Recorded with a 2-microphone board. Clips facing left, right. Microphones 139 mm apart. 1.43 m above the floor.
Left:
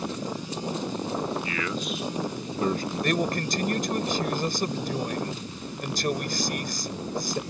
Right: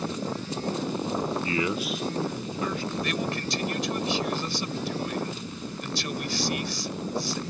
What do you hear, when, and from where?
1.4 s a man speaking: 35° right (ahead or behind); by 2.9 s 45° left (ahead or behind)
3.0 s a man speaking: 45° left (ahead or behind)